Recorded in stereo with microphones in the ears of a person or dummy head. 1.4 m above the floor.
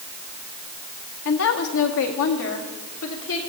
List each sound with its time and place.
1.2 s a woman speaking: 60° left (ahead or behind), 1.3 m; by 3.4 s 80° left, 3.5 m